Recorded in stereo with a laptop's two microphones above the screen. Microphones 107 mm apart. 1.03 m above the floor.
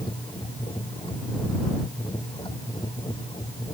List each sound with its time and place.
0.0 s a machine running: 45° left (ahead or behind)